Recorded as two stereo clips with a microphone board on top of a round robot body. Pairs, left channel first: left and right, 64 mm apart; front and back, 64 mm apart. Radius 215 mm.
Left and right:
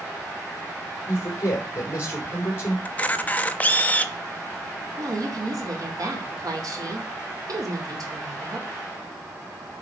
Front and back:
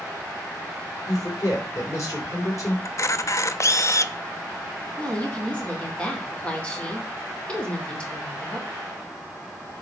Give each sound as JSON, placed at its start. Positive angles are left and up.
{"t": 1.1, "sound": "a man speaking", "azimuth_deg": 40, "distance_m": 4.0}
{"t": 2.9, "sound": "a camera shutter", "azimuth_deg": 30, "distance_m": 0.9}
{"t": 5.0, "sound": "a woman speaking", "azimuth_deg": -75, "distance_m": 3.0}